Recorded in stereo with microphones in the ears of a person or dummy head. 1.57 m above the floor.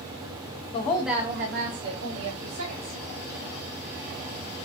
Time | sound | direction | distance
0.7 | a woman speaking | 30° left (ahead or behind) | 0.6 m